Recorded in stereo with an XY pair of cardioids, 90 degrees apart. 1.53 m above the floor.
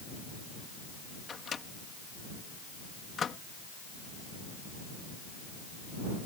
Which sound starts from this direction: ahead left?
A microwave, at 1.3 s.